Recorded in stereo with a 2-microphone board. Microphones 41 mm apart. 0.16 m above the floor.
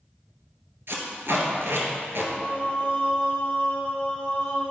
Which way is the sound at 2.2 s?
25° left (ahead or behind).